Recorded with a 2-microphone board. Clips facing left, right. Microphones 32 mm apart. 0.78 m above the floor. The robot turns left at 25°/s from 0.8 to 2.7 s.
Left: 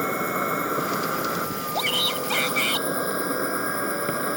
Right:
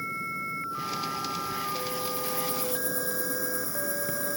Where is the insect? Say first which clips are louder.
Left 8 dB; 90° left; by 4.4 s 40° left.